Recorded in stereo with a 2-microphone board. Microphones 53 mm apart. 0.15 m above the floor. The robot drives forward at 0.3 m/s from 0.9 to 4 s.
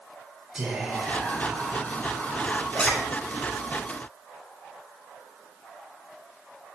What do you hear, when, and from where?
0.6 s whispering: 15° right (ahead or behind), 1.4 m
2.7 s a zipper: 25° left (ahead or behind), 0.6 m